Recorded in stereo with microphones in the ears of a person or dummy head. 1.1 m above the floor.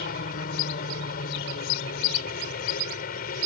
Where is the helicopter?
50° left (ahead or behind).